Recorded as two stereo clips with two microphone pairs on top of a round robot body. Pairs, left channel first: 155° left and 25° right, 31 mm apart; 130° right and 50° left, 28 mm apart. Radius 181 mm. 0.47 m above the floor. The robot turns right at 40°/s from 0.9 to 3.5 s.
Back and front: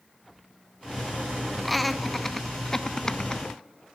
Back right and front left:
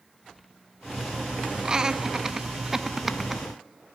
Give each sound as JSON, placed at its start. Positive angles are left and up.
{"t": 1.6, "sound": "laughter", "azimuth_deg": 65, "distance_m": 0.7}